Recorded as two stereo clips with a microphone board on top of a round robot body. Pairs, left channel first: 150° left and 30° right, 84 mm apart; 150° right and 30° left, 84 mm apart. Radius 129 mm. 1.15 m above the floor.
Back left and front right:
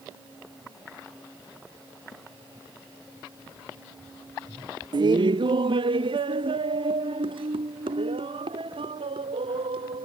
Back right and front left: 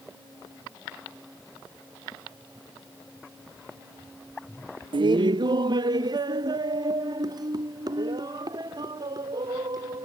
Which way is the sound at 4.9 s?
5° left.